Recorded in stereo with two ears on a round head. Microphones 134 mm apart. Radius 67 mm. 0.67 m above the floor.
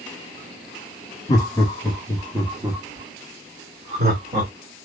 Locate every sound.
1.3 s laughter: 25° left (ahead or behind), 1.1 m; by 4.5 s 40° right (ahead or behind), 1.7 m